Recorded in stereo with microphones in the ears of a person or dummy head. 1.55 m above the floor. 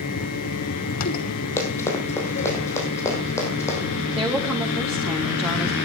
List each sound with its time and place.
0.0 s a fan: 55° left (ahead or behind), 1.2 m
1.6 s running footsteps: 15° left (ahead or behind), 3 m
4.1 s a woman speaking: 10° right (ahead or behind), 2.5 m